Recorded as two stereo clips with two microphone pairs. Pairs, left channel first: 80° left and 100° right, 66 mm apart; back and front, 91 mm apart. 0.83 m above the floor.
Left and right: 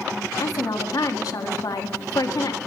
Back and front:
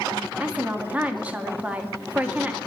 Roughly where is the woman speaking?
Left.